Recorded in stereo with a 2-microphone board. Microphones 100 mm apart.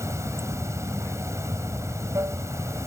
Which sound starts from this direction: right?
Running water, at 0.0 s.